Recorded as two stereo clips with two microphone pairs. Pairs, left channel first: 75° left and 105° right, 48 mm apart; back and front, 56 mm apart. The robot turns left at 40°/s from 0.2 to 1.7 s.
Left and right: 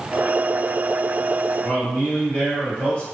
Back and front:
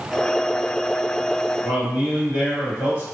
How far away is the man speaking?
About 1.9 m.